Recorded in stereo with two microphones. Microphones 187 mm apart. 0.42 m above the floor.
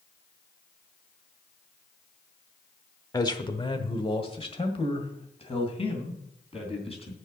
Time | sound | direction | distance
3.1 | a man speaking | 20° left (ahead or behind) | 1.0 m